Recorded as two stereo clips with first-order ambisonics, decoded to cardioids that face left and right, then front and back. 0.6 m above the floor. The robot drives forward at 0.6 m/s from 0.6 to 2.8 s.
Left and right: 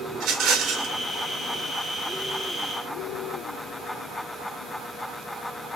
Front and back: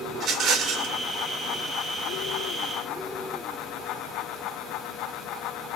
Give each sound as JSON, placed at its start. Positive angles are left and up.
{"t": 0.1, "sound": "a rattle", "azimuth_deg": -125, "distance_m": 1.2}